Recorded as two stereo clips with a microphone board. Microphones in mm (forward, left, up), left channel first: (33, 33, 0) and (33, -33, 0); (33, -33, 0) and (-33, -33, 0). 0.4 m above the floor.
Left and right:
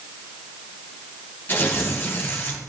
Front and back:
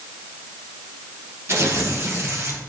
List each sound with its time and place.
1.5 s tearing paper: 145° left, 2.5 m